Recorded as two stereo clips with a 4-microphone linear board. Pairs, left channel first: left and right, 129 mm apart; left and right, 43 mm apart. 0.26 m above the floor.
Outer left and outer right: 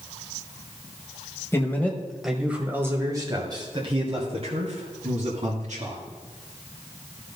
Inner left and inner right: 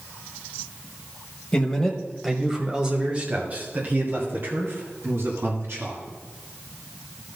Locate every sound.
1.5 s a man speaking: 20° left (ahead or behind), 1.4 m; by 6.0 s 60° right (ahead or behind), 3 m